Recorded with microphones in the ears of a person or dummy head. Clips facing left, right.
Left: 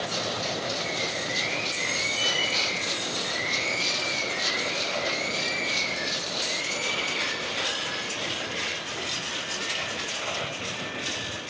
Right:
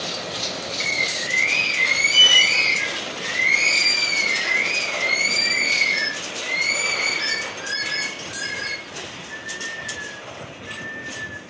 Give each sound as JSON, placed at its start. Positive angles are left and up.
{"t": 0.8, "sound": "a bird", "side_deg": -80, "distance_m": 4.0}